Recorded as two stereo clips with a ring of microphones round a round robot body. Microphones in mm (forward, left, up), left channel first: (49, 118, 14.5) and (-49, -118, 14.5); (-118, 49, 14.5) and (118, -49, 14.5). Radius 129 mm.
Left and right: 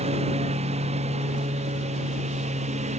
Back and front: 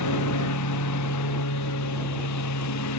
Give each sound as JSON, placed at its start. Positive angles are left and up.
{"t": 0.0, "sound": "a lawn mower", "azimuth_deg": 180}